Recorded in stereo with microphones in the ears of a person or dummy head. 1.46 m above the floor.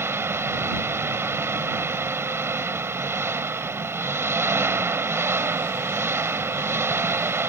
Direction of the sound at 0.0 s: 10° right (ahead or behind).